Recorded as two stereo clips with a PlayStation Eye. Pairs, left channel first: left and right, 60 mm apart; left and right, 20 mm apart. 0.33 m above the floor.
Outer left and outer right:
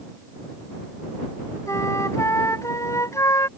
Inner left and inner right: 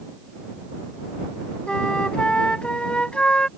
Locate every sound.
1.7 s a flute: 60° left (ahead or behind)